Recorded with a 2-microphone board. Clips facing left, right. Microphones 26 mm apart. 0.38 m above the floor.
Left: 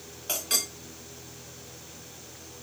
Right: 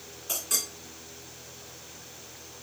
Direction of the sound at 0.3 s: 55° left (ahead or behind).